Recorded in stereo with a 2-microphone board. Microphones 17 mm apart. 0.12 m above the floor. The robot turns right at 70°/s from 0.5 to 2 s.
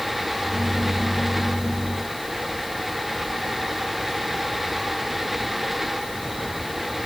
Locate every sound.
Only background noise.